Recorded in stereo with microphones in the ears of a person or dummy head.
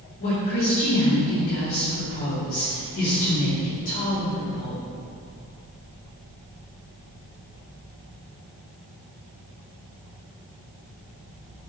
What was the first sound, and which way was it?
A woman speaking, 40° left (ahead or behind).